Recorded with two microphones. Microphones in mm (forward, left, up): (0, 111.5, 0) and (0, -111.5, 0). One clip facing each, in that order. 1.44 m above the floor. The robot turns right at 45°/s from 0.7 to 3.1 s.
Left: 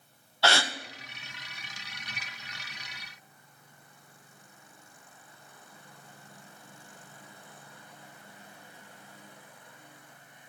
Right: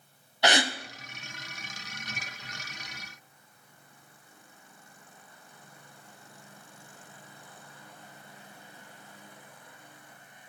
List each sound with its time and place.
0.4 s a gasp: 15° right (ahead or behind), 0.7 m; by 0.7 s 20° right (ahead or behind), 0.7 m